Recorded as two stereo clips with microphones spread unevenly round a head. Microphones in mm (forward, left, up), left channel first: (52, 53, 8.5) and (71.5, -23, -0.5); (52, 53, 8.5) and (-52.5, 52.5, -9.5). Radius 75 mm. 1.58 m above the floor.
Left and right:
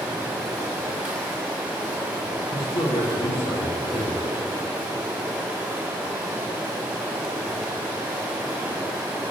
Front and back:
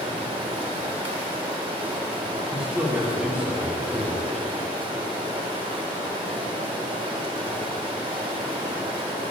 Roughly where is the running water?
Behind right.